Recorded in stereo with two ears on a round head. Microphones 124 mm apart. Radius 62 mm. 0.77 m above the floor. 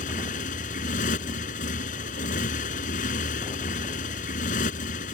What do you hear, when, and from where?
0.0 s a motorcycle: 60° left (ahead or behind)